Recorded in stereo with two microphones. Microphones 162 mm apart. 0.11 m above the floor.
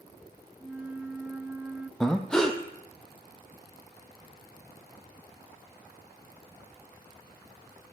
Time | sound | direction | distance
0.6 | a flute | 10° right (ahead or behind) | 0.8 m
2.0 | breathing | 5° left (ahead or behind) | 1.3 m